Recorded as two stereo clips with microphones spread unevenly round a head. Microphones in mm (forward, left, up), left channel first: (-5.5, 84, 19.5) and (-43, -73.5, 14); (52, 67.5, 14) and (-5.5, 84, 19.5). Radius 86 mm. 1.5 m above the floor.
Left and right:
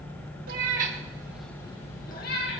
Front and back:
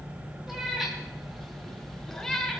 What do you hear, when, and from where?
0.5 s a cat meowing: 115° right, 1.7 m; by 2.6 s 65° left, 2 m